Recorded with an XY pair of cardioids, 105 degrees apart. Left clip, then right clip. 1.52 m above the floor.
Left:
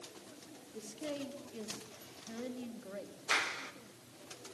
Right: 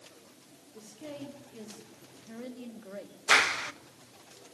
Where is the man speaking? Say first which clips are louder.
Left 2 dB; 25° left, 5.5 m; by 3.1 s 20° right, 4 m.